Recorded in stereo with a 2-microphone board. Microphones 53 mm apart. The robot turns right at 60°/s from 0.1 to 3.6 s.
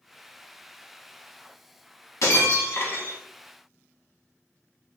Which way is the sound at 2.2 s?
100° left.